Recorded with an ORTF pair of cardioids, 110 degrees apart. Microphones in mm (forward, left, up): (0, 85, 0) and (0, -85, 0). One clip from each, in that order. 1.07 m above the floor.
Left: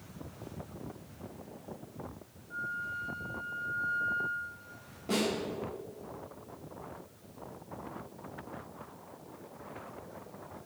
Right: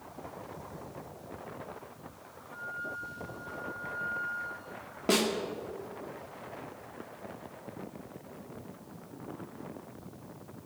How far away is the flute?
About 1.6 m.